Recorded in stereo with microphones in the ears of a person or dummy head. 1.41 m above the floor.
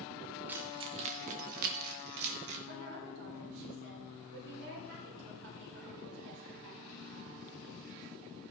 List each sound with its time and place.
0.5 s keys jangling: 10° right (ahead or behind), 0.5 m; by 2.6 s 70° right (ahead or behind), 1.3 m
2.7 s a woman speaking: 70° right (ahead or behind), 4 m